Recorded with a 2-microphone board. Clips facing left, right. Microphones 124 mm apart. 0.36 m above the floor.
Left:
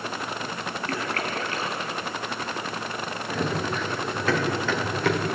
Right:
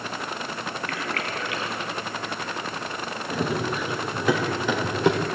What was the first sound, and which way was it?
A splash, 40° left (ahead or behind).